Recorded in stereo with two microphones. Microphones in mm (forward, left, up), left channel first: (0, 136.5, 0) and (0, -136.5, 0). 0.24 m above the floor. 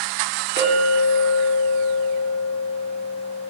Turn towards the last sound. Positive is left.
turn(degrees=45)  # may be behind; listen again after turning